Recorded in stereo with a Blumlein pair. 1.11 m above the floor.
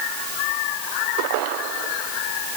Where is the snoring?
I don't hear snoring.